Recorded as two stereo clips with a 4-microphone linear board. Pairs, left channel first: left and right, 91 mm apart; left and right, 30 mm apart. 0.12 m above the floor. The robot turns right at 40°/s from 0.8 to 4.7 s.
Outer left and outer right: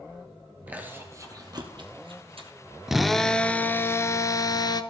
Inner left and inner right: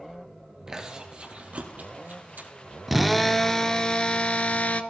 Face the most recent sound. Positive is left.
turn(degrees=65)